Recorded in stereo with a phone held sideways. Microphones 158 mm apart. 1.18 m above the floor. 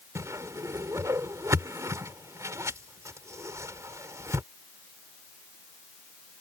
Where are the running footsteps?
No running footsteps in this recording.